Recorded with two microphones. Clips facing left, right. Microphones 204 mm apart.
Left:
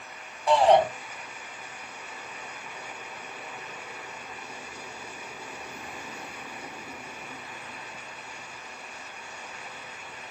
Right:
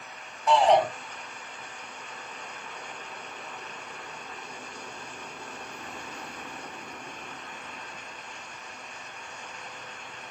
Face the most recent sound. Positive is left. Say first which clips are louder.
# left 2 dB
turn(degrees=35)  # may be behind; listen again after turning